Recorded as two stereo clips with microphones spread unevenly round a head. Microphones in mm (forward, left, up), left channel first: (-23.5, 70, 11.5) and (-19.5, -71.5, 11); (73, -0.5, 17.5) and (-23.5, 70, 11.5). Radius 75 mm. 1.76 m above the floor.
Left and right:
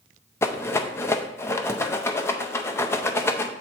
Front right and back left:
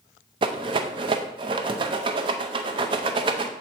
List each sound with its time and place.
0.4 s a rattle: 150° left, 0.5 m